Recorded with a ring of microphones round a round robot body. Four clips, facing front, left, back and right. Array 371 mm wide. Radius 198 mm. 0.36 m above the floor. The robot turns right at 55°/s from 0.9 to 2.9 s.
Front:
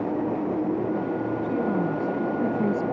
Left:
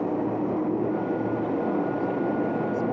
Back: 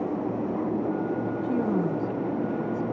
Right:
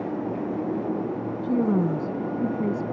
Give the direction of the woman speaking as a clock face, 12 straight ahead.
4 o'clock.